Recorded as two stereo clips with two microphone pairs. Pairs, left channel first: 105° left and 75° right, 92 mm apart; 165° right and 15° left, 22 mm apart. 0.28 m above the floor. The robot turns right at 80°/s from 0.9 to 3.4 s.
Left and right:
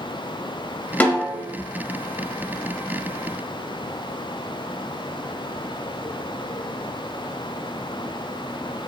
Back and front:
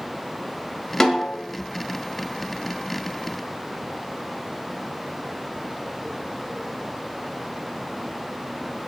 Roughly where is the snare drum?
Behind.